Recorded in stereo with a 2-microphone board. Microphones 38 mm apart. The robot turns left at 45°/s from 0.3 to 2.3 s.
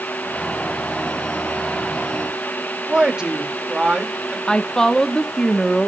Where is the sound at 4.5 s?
20° left (ahead or behind), 0.8 m.